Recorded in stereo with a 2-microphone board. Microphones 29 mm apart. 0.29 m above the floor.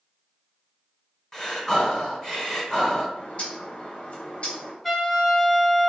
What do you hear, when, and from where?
1.3 s breathing: 15° left (ahead or behind), 1.3 m
3.2 s a bird: 45° left (ahead or behind), 0.8 m
4.8 s a trumpet: 5° left (ahead or behind), 0.9 m